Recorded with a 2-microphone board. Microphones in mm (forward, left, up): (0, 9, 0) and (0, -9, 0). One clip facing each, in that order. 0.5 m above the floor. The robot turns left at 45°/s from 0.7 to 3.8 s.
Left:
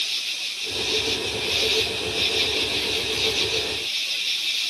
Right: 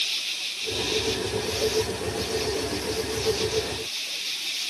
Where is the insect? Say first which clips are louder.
Left 1 dB; 175° left; by 4.7 s 35° left.